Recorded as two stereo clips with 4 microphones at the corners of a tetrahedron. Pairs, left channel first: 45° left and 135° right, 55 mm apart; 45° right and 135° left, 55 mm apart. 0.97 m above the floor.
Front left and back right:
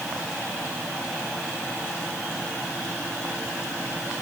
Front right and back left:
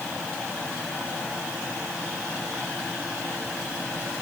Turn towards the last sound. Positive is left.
No sound to turn to.